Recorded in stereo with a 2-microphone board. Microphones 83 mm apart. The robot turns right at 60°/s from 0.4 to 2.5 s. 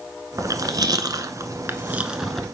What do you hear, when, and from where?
0.4 s chewing: 45° right (ahead or behind), 0.8 m; by 2.5 s 5° left (ahead or behind), 0.8 m